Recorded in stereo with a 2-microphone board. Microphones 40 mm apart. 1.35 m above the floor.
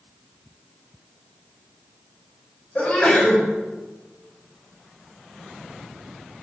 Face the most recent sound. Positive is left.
turn(degrees=35)  # may be behind; listen again after turning